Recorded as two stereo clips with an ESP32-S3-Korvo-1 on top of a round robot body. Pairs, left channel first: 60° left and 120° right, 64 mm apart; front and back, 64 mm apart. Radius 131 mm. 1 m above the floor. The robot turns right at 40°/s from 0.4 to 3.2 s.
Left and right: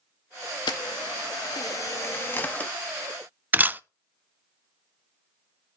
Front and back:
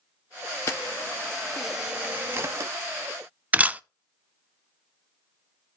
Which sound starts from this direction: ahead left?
A camera shutter, at 0.7 s.